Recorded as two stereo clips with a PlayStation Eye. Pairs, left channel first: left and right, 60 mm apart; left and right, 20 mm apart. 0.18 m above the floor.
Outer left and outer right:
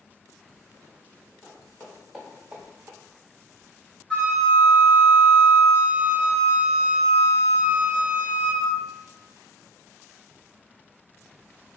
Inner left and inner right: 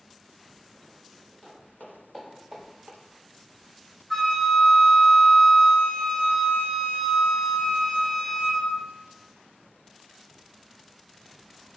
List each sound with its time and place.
1.4 s footsteps: 25° left (ahead or behind), 1.7 m; by 3.0 s 45° right (ahead or behind), 1.0 m
4.1 s a flute: 10° left (ahead or behind), 1.4 m